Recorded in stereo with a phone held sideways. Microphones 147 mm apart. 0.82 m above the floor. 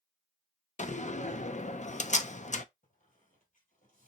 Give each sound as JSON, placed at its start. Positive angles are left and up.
{"t": 0.8, "sound": "a door slam", "side_deg": 55, "distance_m": 0.6}
{"t": 2.8, "sound": "a squeak", "side_deg": 70, "distance_m": 3.0}